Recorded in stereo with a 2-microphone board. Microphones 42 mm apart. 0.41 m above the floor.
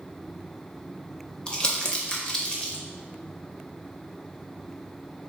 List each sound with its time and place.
1.5 s crumpling: 20° left (ahead or behind), 0.6 m